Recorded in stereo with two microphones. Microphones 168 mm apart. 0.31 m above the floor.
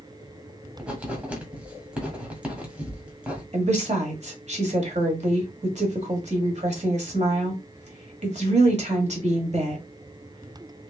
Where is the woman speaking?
45° right (ahead or behind), 1.5 m.